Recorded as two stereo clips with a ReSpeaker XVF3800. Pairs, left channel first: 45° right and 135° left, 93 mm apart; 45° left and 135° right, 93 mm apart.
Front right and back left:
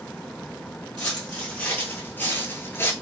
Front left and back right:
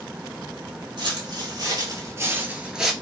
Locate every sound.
1.0 s footsteps: 120° right, 1.5 m; by 2.9 s 50° right, 0.8 m